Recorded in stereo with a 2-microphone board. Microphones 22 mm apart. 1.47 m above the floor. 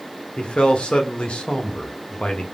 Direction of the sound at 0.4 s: 55° left (ahead or behind).